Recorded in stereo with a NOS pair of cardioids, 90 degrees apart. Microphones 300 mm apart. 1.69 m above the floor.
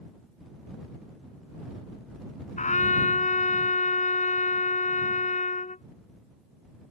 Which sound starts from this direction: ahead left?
A trumpet, at 2.6 s.